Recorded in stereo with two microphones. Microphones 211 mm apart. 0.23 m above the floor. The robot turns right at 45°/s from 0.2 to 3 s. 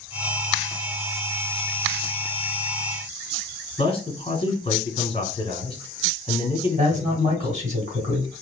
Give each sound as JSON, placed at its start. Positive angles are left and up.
{"t": 3.8, "sound": "a man speaking", "side_deg": 25, "distance_m": 1.6}
{"t": 6.8, "sound": "a man speaking", "side_deg": -35, "distance_m": 2.0}